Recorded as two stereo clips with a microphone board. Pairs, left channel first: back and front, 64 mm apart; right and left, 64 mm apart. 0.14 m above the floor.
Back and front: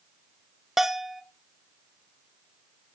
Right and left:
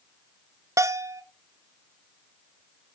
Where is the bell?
85° left, 0.6 m.